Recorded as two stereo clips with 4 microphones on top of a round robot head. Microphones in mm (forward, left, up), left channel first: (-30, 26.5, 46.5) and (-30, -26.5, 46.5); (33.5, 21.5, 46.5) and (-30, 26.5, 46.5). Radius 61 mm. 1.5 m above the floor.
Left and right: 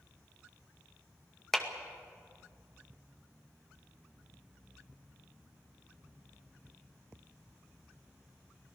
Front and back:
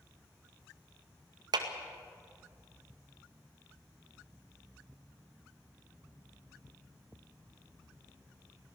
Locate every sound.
1.5 s a clap: 175° left, 2 m